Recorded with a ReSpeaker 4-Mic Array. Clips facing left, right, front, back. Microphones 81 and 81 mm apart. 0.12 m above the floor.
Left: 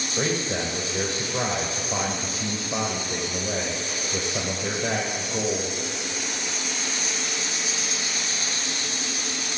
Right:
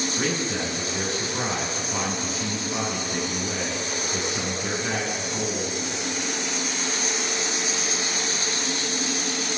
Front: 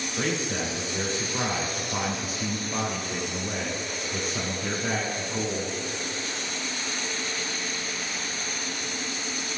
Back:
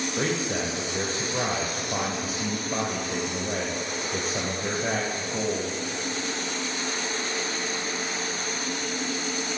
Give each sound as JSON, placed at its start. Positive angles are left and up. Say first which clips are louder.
{"t": 0.2, "sound": "a man speaking", "louder": "left 4 dB, even", "azimuth_deg": 140, "distance_m": 3.0}